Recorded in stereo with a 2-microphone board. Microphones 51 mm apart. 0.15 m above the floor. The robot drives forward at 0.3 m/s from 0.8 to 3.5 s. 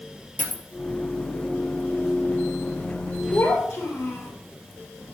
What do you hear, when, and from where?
0.4 s a dropped coin: 40° left (ahead or behind), 1.6 m
3.3 s a child speaking: 65° left (ahead or behind), 2.5 m